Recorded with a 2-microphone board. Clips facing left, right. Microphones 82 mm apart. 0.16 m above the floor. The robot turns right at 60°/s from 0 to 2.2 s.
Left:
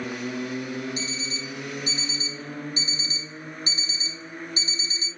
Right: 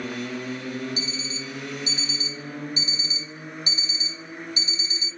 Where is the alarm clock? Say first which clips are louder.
Even; 60° left, 1.4 m; by 5.1 s 135° left, 1.4 m.